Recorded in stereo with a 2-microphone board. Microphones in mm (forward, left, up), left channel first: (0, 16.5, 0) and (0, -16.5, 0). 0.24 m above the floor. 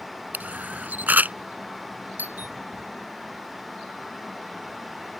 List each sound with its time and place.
0.3 s a camera shutter: 60° right (ahead or behind)
2.2 s a doorbell: 70° right (ahead or behind)